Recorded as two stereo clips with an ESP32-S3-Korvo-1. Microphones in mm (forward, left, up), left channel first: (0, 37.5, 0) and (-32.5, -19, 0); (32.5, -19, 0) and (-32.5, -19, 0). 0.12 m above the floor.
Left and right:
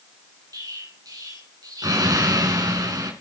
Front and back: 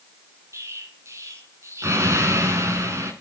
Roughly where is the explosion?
Behind right.